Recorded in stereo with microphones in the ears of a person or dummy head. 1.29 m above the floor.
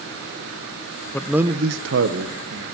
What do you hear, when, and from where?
1.1 s a man speaking: 10° left (ahead or behind), 0.8 m; by 2.6 s 55° right (ahead or behind), 1.8 m